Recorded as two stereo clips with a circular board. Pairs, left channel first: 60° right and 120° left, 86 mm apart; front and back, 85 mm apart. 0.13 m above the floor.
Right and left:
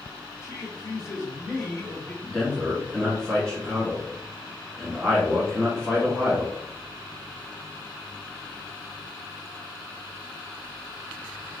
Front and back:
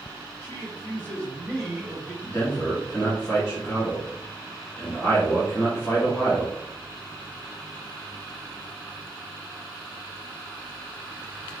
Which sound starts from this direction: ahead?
A man speaking, at 2.2 s.